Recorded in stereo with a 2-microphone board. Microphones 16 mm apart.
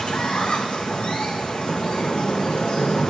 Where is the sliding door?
55° left (ahead or behind), 1.9 m.